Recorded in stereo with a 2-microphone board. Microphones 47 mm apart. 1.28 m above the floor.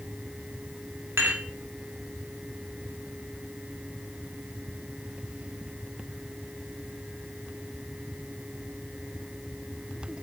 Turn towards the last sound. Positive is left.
turn(degrees=-60)  # may be behind; listen again after turning